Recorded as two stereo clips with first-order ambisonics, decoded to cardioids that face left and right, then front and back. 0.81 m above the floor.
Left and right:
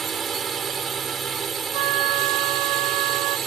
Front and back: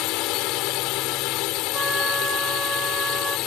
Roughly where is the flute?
Right.